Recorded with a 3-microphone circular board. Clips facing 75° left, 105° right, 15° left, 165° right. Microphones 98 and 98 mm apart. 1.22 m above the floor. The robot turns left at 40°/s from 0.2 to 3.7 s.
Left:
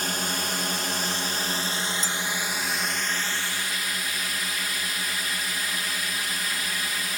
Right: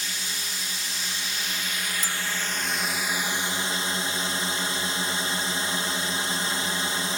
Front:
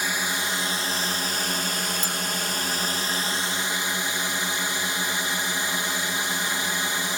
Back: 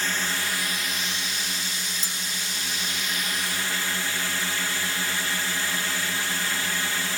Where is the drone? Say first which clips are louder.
Left 7 dB, front 1 dB; 90° left; by 7.2 s 50° right.